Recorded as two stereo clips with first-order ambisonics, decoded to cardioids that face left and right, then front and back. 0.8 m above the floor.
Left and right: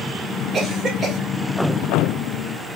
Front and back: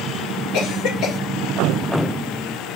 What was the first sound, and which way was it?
A cough, 25° right.